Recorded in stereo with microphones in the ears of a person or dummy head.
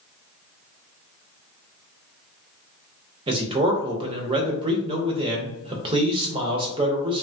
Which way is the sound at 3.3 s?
25° right (ahead or behind).